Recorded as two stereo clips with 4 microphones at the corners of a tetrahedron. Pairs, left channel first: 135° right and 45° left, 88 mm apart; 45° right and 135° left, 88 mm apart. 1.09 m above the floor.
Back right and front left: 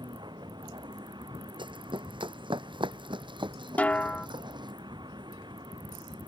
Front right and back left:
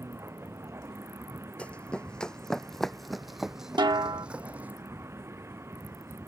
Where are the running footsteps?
30° left; by 4.7 s 65° left.